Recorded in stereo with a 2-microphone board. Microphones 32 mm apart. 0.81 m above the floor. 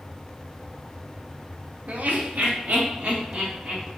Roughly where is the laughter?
Right.